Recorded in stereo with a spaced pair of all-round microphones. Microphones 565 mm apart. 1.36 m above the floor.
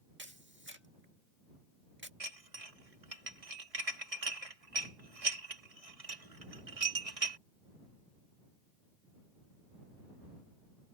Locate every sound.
0.2 s a camera shutter: 20° right (ahead or behind)
2.2 s dishes clattering: 80° right